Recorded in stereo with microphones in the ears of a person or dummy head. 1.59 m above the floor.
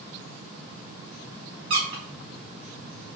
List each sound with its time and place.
1.7 s a squeak: 35° right (ahead or behind), 1.4 m